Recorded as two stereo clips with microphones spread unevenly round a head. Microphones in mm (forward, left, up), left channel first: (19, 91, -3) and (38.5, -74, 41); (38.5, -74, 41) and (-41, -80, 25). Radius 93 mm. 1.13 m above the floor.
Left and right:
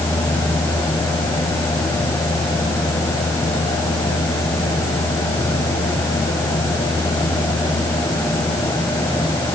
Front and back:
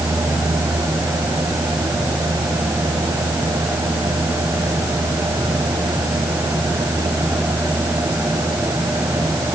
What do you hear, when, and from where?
Only background noise.